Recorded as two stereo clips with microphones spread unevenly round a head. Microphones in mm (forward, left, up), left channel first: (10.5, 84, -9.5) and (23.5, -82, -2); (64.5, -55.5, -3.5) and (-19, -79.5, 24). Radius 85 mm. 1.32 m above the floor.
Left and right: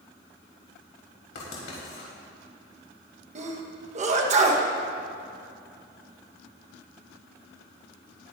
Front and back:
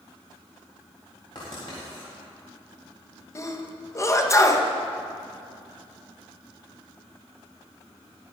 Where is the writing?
80° left, 4 m.